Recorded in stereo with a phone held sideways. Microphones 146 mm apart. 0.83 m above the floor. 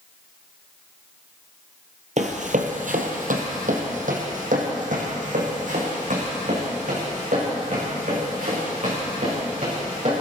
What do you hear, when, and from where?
2.2 s running footsteps: 55° right (ahead or behind), 1.4 m